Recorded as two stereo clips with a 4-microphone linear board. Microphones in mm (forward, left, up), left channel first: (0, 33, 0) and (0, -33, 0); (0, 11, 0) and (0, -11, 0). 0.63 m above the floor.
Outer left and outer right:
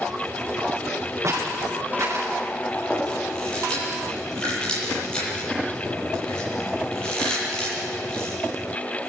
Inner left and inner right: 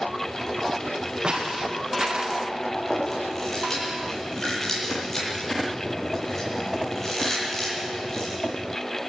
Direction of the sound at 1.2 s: 50° right (ahead or behind).